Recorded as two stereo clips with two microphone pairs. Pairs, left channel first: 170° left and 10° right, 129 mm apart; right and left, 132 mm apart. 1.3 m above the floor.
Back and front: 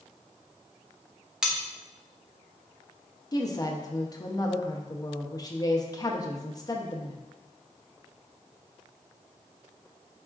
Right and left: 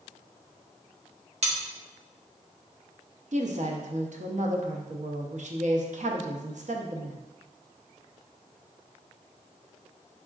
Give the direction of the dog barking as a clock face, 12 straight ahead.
No dog barking in this recording.